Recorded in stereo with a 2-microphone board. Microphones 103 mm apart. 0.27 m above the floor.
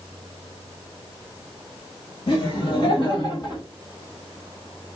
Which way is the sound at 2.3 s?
55° left (ahead or behind).